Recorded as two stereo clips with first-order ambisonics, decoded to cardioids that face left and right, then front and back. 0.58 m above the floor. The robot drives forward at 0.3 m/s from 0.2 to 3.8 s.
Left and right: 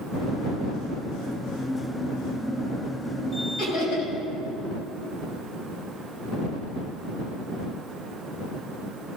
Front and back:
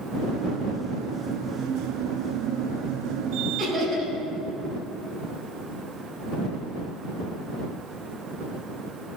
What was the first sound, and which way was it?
Laughter, 115° left.